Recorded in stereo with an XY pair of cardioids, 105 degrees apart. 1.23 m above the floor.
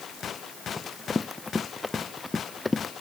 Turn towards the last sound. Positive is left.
turn(degrees=20)